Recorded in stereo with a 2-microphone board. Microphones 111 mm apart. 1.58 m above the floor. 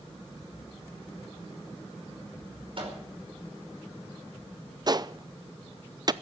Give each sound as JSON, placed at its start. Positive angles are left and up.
{"t": 2.8, "sound": "a microwave", "side_deg": -55, "distance_m": 5.0}
{"t": 4.9, "sound": "a gunshot", "side_deg": -40, "distance_m": 0.5}